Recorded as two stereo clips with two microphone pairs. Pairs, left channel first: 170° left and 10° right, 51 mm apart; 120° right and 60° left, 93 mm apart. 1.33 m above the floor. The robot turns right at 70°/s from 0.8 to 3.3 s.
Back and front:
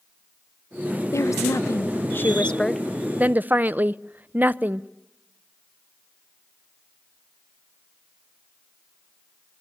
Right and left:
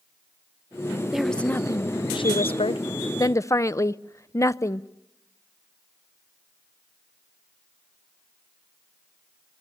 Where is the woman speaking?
145° left, 0.6 m; by 4.9 s 65° right, 0.6 m.